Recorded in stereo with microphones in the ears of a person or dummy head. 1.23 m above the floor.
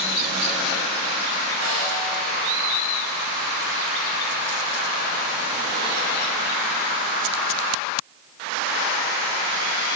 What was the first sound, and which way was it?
A snare drum, 65° right (ahead or behind).